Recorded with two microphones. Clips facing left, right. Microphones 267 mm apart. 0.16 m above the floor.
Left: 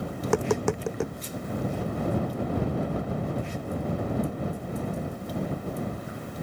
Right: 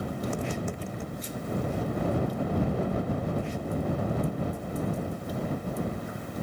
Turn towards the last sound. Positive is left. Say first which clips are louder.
# left 10 dB
turn(degrees=70)  # may be behind; listen again after turning